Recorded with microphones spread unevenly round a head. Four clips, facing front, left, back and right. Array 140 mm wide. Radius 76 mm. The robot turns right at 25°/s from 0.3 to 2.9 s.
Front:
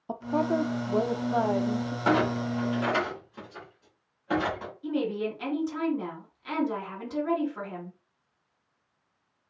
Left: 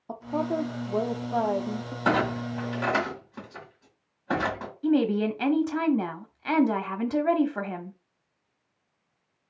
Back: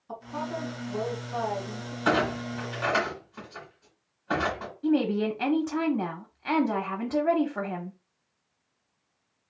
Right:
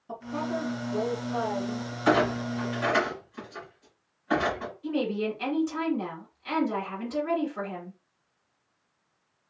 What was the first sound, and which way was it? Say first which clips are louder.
A woman speaking: left 3 dB, front 7 dB; 20° left.